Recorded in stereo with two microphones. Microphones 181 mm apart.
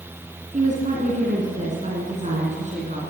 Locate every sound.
0.5 s a woman speaking: 40° right (ahead or behind), 2.5 m